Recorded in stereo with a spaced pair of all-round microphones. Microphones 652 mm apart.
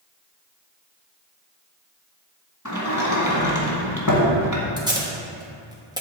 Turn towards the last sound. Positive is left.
turn(degrees=-5)  # may be behind; listen again after turning